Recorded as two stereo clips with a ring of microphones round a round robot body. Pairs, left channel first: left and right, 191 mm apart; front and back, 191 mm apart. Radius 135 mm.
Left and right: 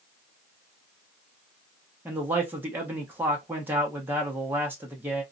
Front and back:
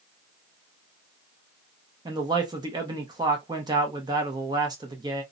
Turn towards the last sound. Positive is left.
turn(degrees=-155)